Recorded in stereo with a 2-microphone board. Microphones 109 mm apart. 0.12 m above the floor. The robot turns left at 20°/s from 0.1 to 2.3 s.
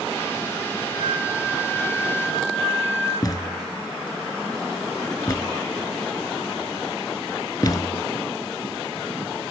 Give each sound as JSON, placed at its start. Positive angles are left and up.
{"t": 0.9, "sound": "a flute", "side_deg": 40, "distance_m": 5.0}
{"t": 3.2, "sound": "a thud", "side_deg": 35, "distance_m": 0.6}